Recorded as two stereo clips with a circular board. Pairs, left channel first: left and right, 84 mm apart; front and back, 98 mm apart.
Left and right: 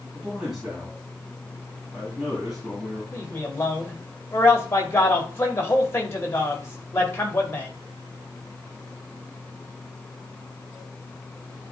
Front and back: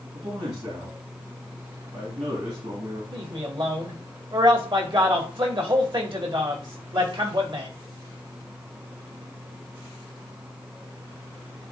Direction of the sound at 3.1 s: 150° left.